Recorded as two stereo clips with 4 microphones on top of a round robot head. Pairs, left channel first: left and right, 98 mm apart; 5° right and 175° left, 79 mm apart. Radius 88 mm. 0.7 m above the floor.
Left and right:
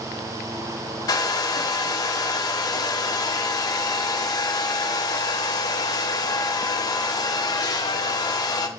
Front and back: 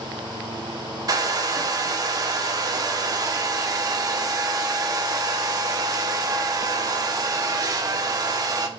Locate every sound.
1.1 s a hair dryer: 135° left, 1.1 m